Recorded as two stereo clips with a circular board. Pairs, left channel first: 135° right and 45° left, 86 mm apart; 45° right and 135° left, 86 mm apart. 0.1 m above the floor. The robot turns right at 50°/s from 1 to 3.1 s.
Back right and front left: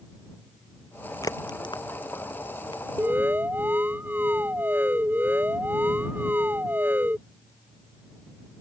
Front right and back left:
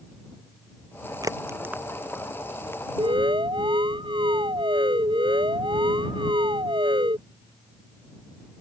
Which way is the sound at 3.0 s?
110° left.